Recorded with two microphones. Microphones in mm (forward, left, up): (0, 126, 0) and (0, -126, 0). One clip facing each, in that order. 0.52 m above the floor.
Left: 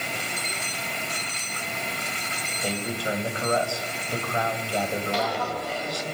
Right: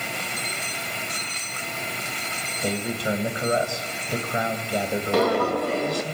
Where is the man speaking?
20° right (ahead or behind), 3 m.